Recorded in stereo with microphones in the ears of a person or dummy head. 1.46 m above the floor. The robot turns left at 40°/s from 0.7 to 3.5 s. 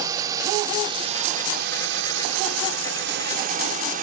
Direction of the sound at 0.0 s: 20° right.